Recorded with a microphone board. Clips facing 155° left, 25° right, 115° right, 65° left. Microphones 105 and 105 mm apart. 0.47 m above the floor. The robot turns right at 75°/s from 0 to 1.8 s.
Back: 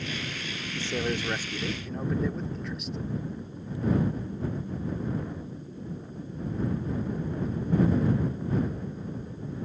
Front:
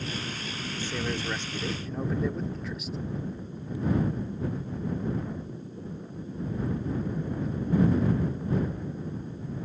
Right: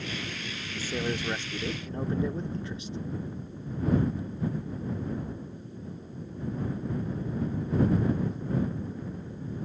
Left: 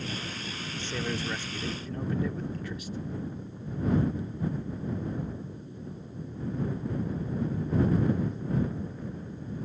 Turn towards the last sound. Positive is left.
turn(degrees=-110)